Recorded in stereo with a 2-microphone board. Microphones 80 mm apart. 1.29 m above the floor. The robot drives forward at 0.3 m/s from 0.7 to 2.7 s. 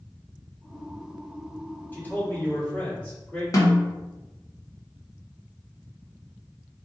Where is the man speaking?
25° left (ahead or behind), 1.2 m; by 3.4 s 20° left (ahead or behind), 1.5 m.